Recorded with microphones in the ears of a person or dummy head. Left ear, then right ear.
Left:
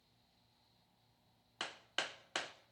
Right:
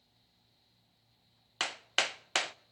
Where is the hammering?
35° right (ahead or behind), 0.6 m.